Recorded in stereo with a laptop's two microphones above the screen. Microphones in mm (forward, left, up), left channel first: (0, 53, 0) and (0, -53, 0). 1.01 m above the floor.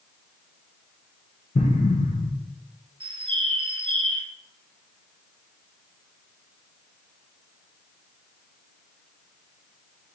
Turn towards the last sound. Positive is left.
turn(degrees=-50)  # may be behind; listen again after turning